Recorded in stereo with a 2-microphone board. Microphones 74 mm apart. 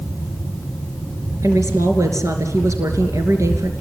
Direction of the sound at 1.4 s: 50° right (ahead or behind).